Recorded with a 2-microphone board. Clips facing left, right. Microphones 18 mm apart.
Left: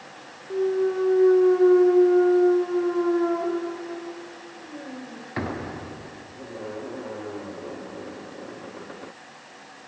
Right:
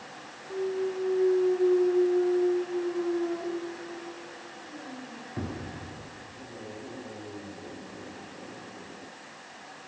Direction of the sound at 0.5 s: 50° left (ahead or behind).